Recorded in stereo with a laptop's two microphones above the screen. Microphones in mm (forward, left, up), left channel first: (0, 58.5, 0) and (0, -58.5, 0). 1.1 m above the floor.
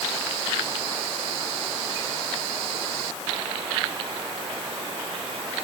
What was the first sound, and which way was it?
Only background noise.